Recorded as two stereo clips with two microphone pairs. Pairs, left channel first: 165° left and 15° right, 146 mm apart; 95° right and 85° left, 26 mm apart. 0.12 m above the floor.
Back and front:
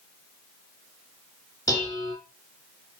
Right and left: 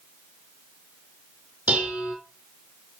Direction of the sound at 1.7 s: 95° left.